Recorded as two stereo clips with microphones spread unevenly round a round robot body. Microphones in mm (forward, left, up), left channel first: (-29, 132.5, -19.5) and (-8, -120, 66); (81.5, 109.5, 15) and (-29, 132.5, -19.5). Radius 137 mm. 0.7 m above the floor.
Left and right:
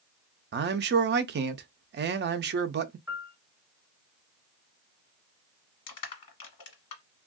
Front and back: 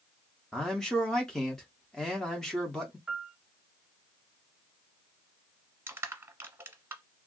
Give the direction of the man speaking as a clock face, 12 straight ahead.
4 o'clock.